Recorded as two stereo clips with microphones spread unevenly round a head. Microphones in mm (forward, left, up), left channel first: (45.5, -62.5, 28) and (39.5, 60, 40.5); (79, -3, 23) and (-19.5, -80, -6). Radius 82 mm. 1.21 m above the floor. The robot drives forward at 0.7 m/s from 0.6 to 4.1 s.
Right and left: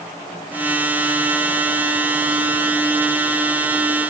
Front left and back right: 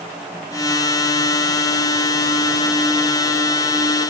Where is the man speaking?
No man speaking in this recording.